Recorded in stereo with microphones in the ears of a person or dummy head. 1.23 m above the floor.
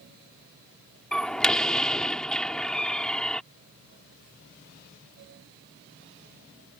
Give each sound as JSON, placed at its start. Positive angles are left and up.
{"t": 1.1, "sound": "a door slam", "side_deg": 0}